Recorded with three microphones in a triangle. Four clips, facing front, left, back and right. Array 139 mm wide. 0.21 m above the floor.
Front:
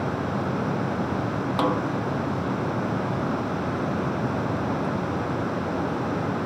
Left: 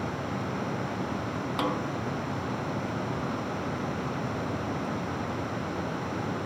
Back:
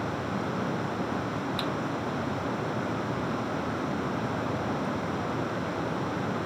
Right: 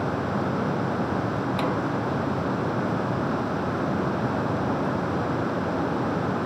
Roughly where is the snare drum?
Ahead.